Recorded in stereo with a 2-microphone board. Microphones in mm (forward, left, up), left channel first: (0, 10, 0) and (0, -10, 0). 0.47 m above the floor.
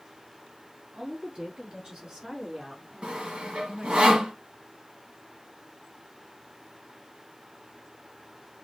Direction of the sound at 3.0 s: 85° right.